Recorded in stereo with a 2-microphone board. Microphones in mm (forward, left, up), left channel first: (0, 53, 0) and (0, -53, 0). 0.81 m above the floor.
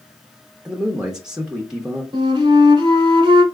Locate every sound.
0.7 s a man speaking: 10° right (ahead or behind), 1.0 m
2.1 s a flute: 50° right (ahead or behind), 1.3 m